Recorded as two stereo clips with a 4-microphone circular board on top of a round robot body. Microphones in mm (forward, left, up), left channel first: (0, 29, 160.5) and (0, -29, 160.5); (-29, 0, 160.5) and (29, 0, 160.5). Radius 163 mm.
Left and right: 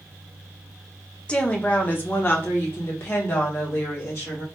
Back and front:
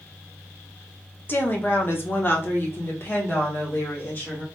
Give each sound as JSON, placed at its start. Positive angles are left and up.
{"t": 1.3, "sound": "a woman speaking", "azimuth_deg": 150, "distance_m": 1.0}